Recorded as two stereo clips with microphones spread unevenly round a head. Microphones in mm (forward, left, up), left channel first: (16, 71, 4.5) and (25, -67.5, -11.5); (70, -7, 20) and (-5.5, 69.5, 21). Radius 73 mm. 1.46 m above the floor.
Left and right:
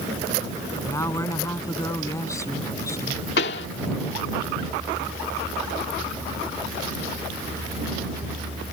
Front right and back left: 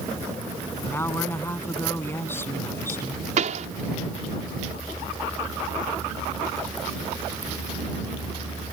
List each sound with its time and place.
0.8 s a woman speaking: 25° left
3.4 s a pop: 120° left